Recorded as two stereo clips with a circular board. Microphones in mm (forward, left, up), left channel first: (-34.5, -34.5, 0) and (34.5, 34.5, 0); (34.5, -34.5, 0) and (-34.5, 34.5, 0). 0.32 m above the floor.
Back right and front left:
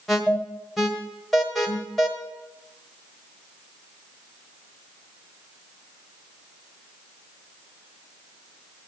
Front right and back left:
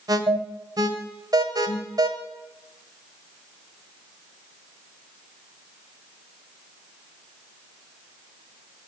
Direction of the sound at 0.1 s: 135° left.